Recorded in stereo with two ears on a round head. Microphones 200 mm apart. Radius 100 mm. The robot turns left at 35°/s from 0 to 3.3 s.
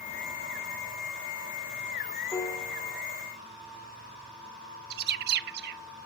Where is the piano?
15° left (ahead or behind), 1.7 m; by 3.0 s 5° right (ahead or behind), 1.7 m.